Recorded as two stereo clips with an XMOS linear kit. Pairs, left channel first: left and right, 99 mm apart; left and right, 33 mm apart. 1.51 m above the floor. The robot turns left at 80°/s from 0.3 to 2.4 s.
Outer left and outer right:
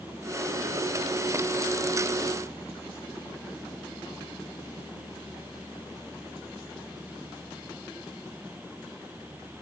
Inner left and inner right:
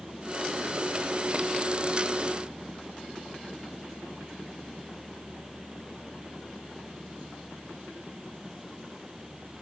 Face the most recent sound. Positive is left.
No sound to turn to.